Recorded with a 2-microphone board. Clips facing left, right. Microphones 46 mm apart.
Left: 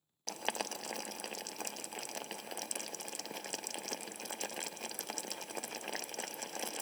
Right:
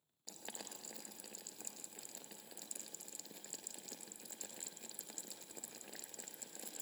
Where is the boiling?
80° left, 0.6 m.